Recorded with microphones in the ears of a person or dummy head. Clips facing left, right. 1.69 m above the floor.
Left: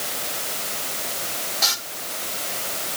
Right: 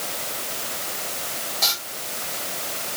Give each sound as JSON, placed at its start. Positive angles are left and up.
{"t": 1.6, "sound": "frying", "side_deg": 0, "distance_m": 5.5}